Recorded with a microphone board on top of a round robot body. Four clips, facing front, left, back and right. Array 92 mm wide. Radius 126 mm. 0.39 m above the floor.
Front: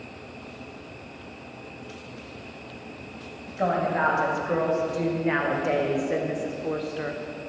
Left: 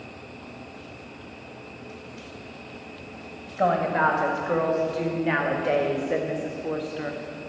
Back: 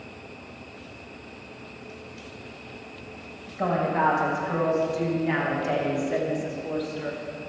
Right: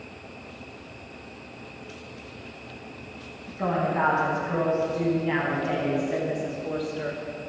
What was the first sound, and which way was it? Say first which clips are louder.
A woman speaking: left 3 dB, even; 65° left.